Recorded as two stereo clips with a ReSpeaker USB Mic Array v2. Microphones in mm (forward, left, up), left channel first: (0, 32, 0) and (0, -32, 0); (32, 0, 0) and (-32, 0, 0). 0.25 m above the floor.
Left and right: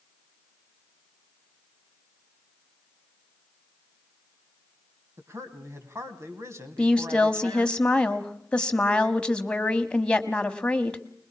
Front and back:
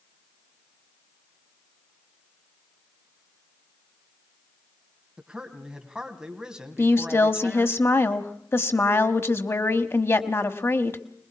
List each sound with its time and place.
5.2 s a man speaking: 105° right, 2.5 m
6.8 s a woman speaking: 25° left, 1.3 m